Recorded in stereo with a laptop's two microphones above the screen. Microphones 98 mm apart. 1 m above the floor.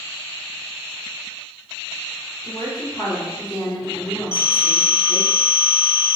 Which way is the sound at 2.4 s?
35° left (ahead or behind).